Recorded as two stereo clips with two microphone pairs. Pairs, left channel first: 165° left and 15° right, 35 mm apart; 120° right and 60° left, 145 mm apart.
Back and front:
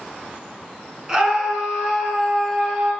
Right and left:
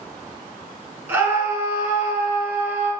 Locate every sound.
1.1 s a scream: 10° left, 1.2 m